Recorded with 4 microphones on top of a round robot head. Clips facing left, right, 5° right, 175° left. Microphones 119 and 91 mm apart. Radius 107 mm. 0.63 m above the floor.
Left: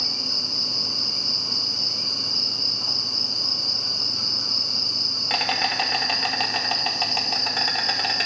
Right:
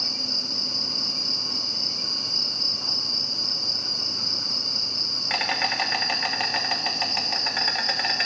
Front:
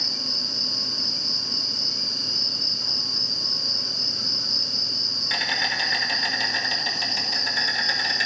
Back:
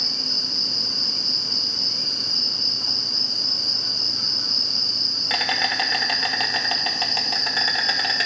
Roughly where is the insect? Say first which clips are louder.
Left 1 dB, back 1 dB; behind left.